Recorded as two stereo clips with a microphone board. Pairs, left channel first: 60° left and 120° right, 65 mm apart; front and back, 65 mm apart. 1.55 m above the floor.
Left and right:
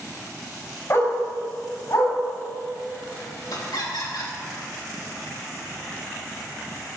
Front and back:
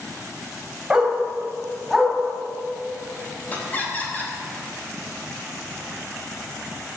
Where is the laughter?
65° left, 3.5 m.